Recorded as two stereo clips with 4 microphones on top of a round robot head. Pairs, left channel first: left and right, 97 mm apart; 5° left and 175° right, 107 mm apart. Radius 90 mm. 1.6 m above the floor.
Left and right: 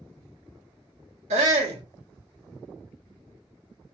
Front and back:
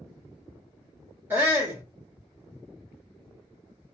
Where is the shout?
100° right, 1.5 m.